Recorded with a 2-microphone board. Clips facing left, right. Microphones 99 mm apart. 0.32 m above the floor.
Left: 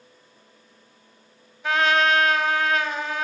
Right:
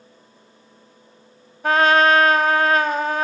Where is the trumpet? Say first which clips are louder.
Right 5 dB; 45° right (ahead or behind), 1.0 m.